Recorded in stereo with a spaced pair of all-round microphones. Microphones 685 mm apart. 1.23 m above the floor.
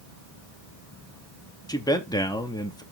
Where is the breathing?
I don't hear breathing.